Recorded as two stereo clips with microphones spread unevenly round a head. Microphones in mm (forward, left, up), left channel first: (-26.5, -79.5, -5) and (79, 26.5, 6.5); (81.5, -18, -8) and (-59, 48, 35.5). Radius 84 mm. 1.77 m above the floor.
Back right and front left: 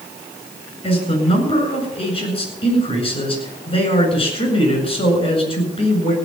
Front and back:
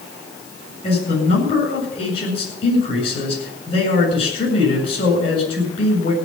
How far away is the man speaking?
About 7.5 m.